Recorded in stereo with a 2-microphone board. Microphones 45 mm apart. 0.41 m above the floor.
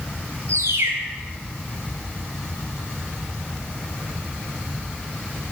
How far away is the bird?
About 2.5 m.